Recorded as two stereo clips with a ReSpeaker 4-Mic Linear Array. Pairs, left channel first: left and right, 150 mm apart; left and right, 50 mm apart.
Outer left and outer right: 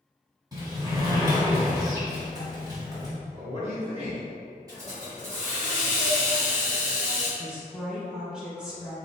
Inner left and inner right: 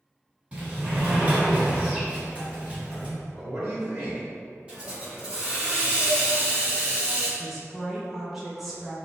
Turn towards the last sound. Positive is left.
turn(degrees=-5)  # may be behind; listen again after turning